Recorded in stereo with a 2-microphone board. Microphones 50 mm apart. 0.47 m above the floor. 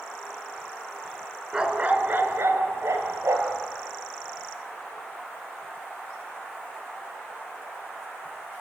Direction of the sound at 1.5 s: 15° right (ahead or behind).